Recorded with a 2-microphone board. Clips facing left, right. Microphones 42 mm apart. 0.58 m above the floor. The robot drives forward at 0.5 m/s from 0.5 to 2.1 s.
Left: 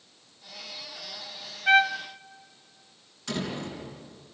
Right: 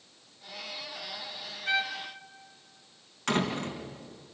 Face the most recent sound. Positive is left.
turn(degrees=-55)  # may be behind; listen again after turning